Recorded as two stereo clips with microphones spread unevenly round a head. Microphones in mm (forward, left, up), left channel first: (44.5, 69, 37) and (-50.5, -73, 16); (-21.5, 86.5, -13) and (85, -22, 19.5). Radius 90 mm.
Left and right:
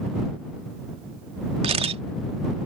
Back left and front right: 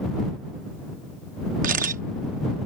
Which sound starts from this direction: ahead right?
A camera shutter, at 1.6 s.